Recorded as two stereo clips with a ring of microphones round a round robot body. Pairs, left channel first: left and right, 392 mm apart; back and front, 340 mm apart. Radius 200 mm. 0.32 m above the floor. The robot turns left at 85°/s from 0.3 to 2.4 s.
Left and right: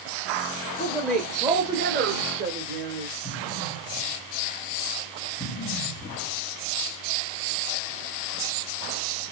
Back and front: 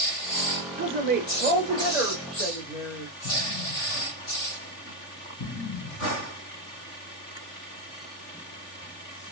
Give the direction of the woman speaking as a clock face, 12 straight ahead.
11 o'clock.